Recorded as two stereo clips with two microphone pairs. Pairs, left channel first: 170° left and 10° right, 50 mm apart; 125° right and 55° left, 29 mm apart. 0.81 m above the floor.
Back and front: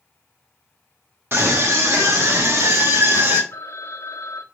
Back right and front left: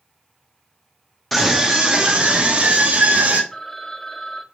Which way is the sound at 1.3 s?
40° right.